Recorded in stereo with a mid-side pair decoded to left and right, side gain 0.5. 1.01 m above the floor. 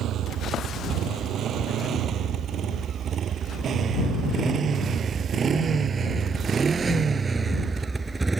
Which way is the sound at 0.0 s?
65° right.